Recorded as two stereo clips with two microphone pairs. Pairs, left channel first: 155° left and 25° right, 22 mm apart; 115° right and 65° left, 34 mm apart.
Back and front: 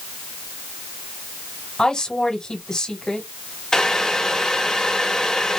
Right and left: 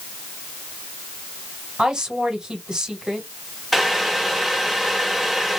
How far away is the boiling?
About 1.3 m.